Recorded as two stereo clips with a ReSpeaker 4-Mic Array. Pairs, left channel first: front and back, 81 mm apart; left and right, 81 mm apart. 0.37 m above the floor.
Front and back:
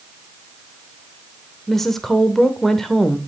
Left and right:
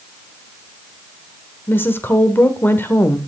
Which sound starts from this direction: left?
A woman speaking, at 1.7 s.